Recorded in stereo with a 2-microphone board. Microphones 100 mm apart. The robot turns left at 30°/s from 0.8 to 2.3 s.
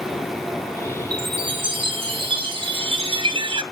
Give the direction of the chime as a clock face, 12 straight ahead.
2 o'clock.